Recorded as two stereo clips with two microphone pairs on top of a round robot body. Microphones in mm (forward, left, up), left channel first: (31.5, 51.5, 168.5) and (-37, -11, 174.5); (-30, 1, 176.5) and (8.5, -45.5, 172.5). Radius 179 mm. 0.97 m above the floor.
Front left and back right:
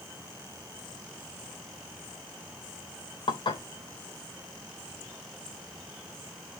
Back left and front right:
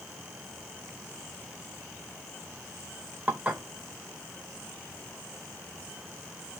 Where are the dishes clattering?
10° left, 3 m.